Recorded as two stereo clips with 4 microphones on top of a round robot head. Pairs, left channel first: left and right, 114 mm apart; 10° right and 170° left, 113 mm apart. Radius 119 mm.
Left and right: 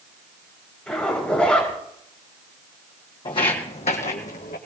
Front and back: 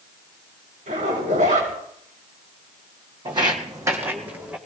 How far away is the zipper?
About 6.5 m.